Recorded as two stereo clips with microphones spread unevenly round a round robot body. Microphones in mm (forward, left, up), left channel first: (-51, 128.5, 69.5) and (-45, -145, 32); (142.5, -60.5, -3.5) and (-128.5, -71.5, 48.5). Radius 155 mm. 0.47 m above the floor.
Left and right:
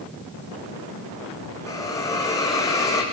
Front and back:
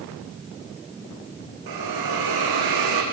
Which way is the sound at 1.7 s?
170° left.